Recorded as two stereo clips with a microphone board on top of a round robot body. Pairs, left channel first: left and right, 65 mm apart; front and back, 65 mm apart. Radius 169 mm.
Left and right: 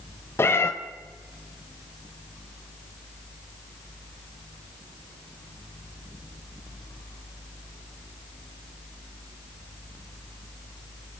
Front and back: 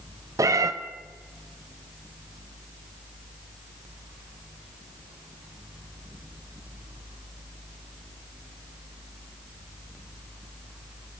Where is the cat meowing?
145° left, 1.4 m.